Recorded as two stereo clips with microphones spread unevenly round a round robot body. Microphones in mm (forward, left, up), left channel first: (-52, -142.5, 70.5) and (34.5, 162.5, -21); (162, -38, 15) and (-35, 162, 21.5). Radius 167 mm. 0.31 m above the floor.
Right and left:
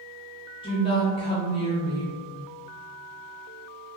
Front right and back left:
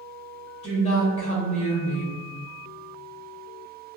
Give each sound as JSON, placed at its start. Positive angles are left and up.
{"t": 0.6, "sound": "a woman speaking", "azimuth_deg": -20, "distance_m": 1.0}